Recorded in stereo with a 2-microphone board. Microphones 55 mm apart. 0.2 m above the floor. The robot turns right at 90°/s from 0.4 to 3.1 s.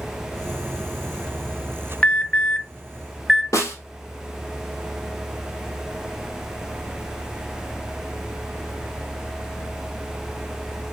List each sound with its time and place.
2.0 s an alarm: 20° left (ahead or behind), 0.7 m; by 3.4 s 5° left (ahead or behind), 0.7 m
3.5 s a snare drum: 80° left, 2.5 m